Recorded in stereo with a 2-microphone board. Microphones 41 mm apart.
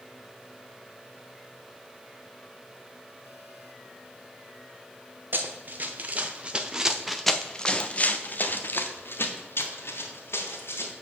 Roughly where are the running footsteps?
Right.